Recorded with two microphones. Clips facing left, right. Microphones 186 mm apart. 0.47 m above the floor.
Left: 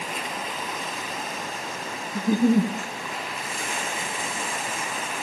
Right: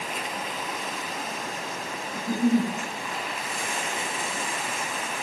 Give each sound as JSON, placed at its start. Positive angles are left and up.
{"t": 2.1, "sound": "a giggle", "side_deg": 70, "distance_m": 0.6}